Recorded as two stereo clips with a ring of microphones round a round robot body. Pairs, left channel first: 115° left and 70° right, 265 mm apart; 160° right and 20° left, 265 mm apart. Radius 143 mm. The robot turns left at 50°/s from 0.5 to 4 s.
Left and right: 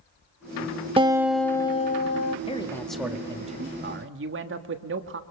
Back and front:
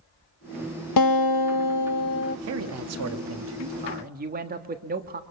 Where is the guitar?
140° right, 0.6 m; by 2.4 s 150° left, 0.6 m.